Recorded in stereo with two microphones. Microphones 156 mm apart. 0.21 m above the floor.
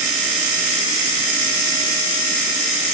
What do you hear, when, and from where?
Only background noise.